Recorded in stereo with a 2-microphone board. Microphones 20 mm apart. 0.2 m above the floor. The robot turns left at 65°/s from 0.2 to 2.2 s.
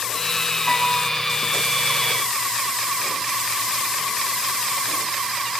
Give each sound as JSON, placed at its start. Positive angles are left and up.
{"t": 0.7, "sound": "a piano", "side_deg": 5, "distance_m": 8.5}